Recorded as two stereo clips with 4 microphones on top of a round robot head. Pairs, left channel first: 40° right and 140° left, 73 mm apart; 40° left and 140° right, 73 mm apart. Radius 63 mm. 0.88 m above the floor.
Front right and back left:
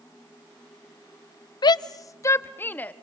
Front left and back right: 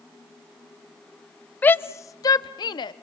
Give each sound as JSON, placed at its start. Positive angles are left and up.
{"t": 1.6, "sound": "a shout", "azimuth_deg": -30, "distance_m": 0.8}